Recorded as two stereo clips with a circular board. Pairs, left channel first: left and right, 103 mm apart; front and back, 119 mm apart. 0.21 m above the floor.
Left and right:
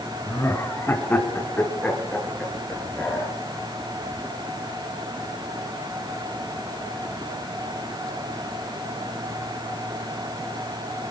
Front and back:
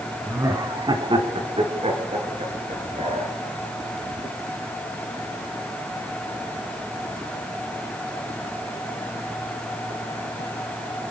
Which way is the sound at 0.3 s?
130° left.